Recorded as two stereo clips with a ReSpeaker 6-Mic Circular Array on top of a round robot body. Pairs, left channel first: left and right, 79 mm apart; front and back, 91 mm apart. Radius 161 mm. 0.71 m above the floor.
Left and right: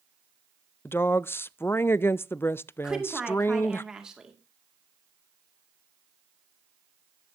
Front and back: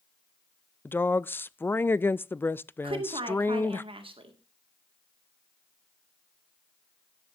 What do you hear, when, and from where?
0.8 s a woman speaking: 50° left, 0.5 m
2.8 s a woman speaking: 170° right, 2 m